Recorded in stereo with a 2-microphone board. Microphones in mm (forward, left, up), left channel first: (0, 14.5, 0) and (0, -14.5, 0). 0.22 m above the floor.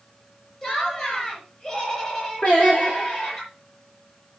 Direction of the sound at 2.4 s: 45° left (ahead or behind).